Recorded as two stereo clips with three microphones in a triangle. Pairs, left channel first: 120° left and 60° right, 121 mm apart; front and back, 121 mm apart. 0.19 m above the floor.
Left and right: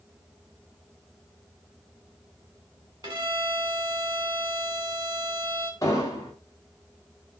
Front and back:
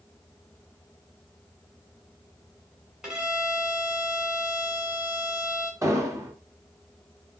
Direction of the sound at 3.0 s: 95° right.